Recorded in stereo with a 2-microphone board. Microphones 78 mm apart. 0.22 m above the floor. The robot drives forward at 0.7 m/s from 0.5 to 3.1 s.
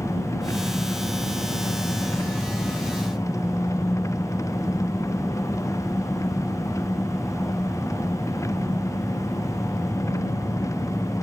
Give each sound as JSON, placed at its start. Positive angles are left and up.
{"t": 0.0, "sound": "an engine running", "side_deg": 40}